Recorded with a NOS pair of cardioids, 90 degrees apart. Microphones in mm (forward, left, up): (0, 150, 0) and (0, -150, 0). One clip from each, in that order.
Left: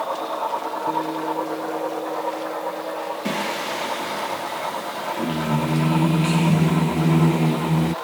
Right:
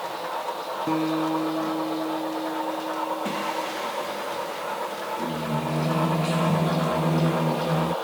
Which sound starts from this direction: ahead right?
A guitar, at 0.9 s.